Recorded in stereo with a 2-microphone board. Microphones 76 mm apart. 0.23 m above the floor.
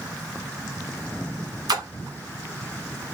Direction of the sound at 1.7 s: 60° right (ahead or behind).